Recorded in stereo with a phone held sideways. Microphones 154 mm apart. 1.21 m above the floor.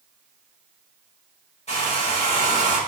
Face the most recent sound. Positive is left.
turn(degrees=45)  # may be behind; listen again after turning